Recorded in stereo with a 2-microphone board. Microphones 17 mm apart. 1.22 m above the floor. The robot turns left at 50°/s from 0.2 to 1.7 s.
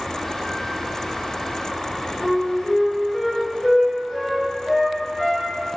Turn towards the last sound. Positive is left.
turn(degrees=45)  # may be behind; listen again after turning